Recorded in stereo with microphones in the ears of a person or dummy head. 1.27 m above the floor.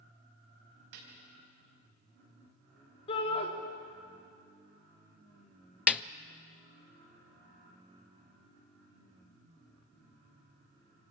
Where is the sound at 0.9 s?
80° right, 5 m.